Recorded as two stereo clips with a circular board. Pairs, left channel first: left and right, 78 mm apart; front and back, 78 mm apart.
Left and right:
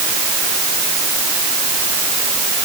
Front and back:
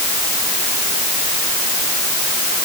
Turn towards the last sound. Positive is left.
No sound to turn to.